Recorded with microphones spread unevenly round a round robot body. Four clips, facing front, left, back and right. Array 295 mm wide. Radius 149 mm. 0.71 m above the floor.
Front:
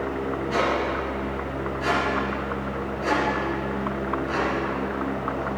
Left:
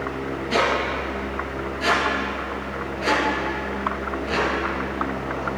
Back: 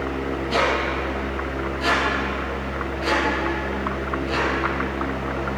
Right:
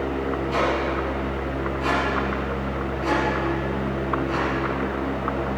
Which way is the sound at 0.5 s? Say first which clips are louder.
Left 3 dB, back 2 dB; 110° left.